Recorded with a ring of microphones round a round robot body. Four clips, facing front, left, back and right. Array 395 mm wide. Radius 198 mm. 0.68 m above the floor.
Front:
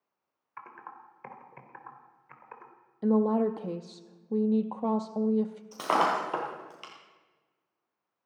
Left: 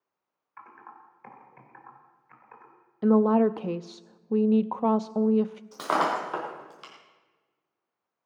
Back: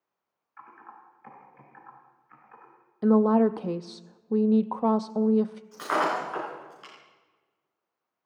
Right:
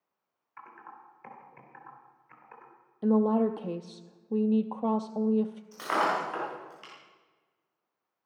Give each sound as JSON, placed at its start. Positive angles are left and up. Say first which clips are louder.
{"t": 0.6, "sound": "typing on a keyboard", "louder": "left 1 dB, front 2 dB", "azimuth_deg": -5, "distance_m": 3.0}
{"t": 3.0, "sound": "a woman speaking", "louder": "left 4 dB, back 5 dB", "azimuth_deg": 130, "distance_m": 0.5}
{"t": 5.7, "sound": "breaking glass", "louder": "left 2 dB, front 1 dB", "azimuth_deg": 35, "distance_m": 5.5}